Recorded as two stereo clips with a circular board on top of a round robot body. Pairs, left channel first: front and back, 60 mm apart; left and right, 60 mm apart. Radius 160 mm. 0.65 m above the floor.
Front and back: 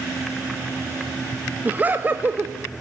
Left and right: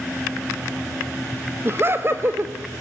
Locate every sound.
1.6 s laughter: 125° right, 1.7 m